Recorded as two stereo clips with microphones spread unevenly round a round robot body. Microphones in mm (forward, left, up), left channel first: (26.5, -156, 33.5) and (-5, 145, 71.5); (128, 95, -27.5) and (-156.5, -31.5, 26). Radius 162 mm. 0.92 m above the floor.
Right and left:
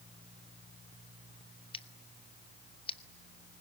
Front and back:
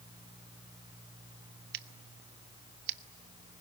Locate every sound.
1.7 s scissors: 150° right, 0.8 m